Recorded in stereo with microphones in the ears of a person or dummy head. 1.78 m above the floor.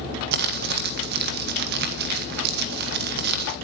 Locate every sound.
0.3 s crumpling: 60° right (ahead or behind), 1.3 m